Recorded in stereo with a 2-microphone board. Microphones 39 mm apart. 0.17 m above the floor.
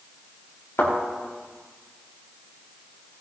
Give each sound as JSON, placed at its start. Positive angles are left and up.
{"t": 0.8, "sound": "a thud", "side_deg": 80, "distance_m": 6.0}